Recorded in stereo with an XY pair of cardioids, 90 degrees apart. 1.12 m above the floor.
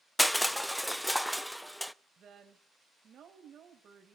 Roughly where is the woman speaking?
Ahead right.